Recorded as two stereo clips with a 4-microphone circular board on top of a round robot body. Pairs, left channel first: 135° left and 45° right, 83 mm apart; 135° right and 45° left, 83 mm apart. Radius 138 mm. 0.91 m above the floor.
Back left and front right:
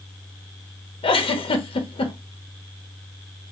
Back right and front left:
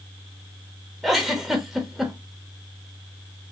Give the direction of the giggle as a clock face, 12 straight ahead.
8 o'clock.